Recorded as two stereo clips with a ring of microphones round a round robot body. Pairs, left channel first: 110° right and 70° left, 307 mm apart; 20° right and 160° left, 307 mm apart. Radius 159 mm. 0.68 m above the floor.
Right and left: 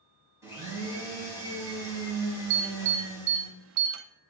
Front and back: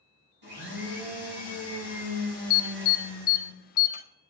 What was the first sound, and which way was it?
A blender, 150° left.